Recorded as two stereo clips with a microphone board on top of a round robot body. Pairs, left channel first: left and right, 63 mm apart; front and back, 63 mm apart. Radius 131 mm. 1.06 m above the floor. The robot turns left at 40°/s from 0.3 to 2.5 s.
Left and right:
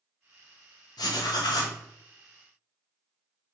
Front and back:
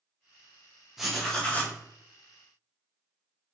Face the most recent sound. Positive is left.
turn(degrees=35)